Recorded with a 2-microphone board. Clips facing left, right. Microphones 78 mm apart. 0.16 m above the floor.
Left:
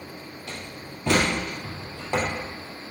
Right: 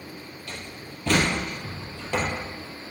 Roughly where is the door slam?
Centre.